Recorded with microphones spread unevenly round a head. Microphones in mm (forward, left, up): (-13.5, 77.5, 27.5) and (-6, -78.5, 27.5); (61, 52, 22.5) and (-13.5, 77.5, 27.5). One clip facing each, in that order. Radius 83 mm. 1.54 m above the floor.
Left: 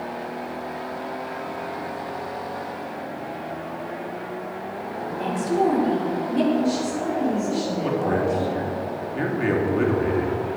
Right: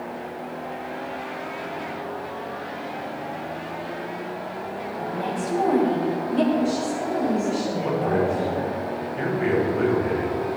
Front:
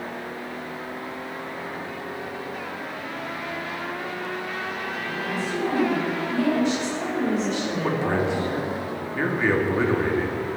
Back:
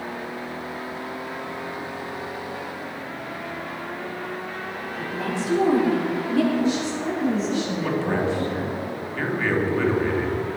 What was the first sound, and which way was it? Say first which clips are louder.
A woman speaking: left 1 dB, back 3 dB; 150° left.